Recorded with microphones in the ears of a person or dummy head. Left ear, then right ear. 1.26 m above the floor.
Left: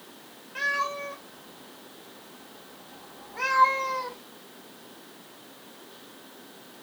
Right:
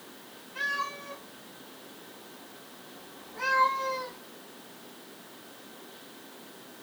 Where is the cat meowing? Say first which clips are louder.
Left 4 dB; 30° left (ahead or behind), 0.7 m.